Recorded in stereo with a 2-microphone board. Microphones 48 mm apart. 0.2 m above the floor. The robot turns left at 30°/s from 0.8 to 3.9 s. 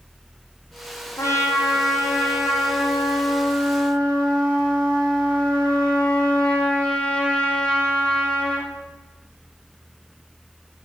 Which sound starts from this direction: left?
A trumpet, at 1.2 s.